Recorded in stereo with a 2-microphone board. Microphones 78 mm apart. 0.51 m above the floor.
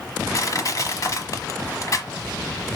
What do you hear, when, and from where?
0.3 s crushing: 45° left (ahead or behind), 1.1 m